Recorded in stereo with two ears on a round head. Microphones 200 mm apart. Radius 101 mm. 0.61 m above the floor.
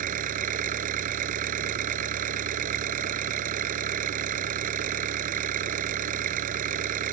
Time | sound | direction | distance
0.0 | an engine running | 35° right (ahead or behind) | ?